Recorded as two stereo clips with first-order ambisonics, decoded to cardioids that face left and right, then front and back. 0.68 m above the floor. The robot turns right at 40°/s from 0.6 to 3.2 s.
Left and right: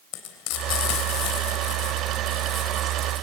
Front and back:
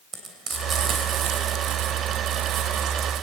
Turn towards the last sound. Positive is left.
turn(degrees=-140)